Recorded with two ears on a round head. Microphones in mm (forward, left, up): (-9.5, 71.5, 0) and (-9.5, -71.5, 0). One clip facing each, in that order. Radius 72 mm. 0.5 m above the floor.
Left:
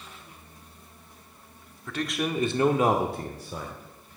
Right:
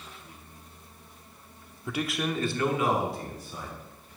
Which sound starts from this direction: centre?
A man speaking, at 1.9 s.